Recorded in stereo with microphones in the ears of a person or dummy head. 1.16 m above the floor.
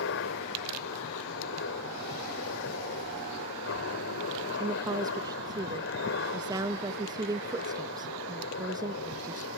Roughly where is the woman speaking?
Centre.